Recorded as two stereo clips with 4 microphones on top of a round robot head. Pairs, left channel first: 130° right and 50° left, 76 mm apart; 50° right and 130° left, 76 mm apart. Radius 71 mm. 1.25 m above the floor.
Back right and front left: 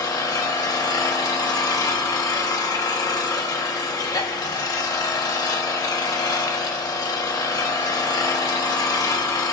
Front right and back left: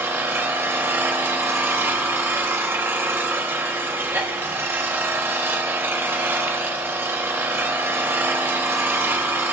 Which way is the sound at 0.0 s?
170° right.